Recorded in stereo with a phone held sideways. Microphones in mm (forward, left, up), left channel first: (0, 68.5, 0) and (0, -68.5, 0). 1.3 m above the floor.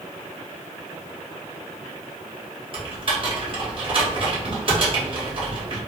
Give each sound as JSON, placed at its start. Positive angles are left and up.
{"t": 2.7, "sound": "typing on a keyboard", "side_deg": -40, "distance_m": 1.3}